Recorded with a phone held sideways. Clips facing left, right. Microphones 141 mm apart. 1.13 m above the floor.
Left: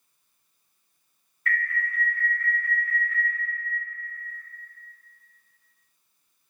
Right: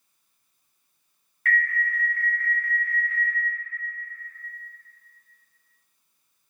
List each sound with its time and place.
1.4 s an alarm: 70° right (ahead or behind), 1.2 m